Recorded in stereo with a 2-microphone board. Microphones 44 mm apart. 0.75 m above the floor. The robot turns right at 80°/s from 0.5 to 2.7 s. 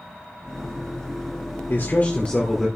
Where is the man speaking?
105° left, 2 m; by 2.7 s straight behind, 2 m.